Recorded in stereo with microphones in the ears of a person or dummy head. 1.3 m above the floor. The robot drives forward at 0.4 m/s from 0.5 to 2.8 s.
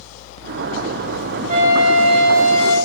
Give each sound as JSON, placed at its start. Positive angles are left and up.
{"t": 1.5, "sound": "a flute", "side_deg": -75, "distance_m": 2.5}